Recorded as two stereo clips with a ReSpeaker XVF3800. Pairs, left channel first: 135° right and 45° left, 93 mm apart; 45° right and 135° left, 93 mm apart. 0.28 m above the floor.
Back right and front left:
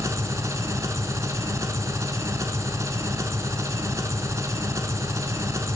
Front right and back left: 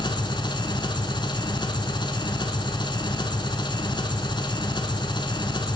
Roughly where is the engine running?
Ahead.